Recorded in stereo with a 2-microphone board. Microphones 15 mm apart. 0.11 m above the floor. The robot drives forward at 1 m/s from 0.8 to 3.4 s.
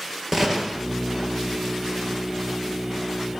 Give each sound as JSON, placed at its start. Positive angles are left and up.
{"t": 0.3, "sound": "a gunshot", "side_deg": -20, "distance_m": 2.0}